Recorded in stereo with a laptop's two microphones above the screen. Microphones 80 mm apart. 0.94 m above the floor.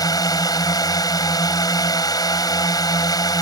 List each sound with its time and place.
0.0 s a drone: 50° left (ahead or behind)